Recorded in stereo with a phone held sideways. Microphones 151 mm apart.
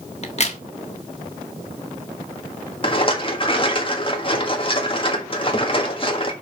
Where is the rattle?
35° left (ahead or behind), 1.7 m.